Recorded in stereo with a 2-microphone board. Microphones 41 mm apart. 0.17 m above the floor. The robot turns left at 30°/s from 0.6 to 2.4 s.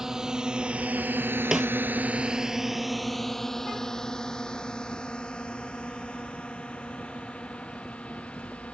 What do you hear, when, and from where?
0.0 s a drone: 10° right (ahead or behind); by 8.8 s 30° left (ahead or behind)
1.5 s a snare drum: 15° right (ahead or behind); by 1.7 s 10° right (ahead or behind)